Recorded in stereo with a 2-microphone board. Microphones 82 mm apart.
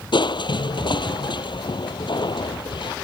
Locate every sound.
0.1 s crushing: 65° left (ahead or behind)